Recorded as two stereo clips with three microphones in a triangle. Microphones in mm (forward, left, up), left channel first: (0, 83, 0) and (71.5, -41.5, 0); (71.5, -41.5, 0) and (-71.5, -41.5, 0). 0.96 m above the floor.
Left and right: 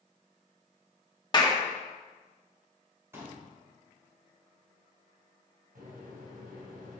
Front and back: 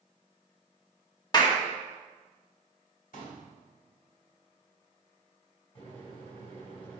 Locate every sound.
1.3 s a clap: 60° left, 1.1 m
3.1 s a pop: 15° left, 3 m
5.8 s a microwave: 50° right, 3.5 m